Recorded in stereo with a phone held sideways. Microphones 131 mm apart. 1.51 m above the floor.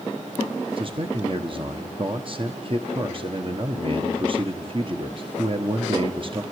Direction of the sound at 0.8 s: 40° right (ahead or behind).